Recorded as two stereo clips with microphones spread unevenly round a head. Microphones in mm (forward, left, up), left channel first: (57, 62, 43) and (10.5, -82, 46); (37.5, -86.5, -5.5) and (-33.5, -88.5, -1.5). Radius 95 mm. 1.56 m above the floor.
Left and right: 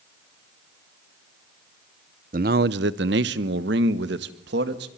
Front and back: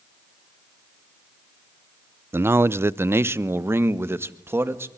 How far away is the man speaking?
About 0.6 m.